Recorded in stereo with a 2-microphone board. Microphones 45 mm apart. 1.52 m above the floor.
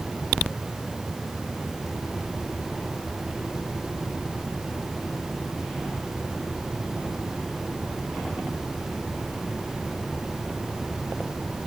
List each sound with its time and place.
Only background noise.